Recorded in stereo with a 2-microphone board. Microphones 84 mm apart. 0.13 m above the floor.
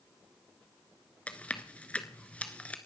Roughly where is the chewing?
Centre.